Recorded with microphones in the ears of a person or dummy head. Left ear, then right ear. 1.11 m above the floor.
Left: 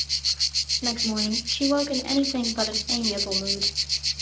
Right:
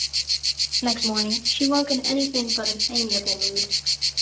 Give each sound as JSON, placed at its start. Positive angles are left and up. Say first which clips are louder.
{"t": 0.8, "sound": "a woman speaking", "louder": "right 3 dB", "side_deg": -25, "distance_m": 3.0}